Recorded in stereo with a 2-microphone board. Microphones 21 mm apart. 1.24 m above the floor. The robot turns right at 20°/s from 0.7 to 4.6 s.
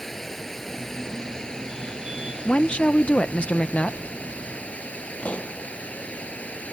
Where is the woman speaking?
50° left; by 4.0 s 85° left.